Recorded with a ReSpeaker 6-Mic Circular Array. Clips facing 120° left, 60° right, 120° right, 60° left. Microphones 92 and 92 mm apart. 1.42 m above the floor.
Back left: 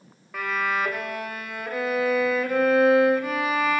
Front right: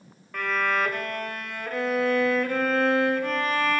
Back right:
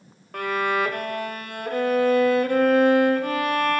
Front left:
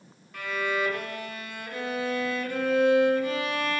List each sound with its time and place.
0.3 s a violin: 155° right, 1.2 m